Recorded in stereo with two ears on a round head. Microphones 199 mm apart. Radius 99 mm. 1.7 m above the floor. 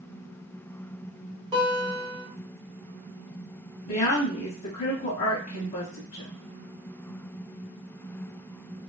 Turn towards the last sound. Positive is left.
turn(degrees=35)  # may be behind; listen again after turning